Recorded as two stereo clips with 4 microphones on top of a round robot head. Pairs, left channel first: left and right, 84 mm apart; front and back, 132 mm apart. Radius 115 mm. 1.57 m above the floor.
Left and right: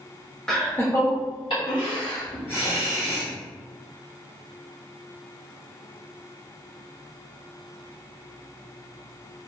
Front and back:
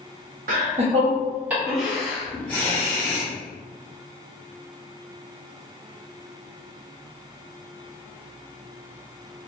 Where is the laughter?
170° left, 0.6 m; by 3.3 s 70° left, 1.3 m.